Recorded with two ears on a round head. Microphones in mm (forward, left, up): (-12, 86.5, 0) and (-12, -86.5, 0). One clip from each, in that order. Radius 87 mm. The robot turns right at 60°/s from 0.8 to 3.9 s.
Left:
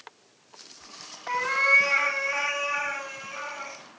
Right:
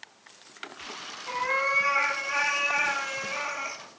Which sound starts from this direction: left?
A cat meowing, at 1.3 s.